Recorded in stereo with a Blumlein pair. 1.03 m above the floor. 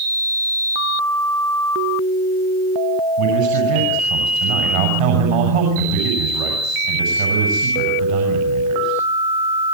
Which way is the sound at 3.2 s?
50° right.